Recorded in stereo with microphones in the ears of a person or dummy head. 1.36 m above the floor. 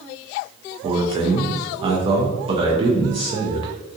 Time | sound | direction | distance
0.8 | a man speaking | 30° right (ahead or behind) | 0.5 m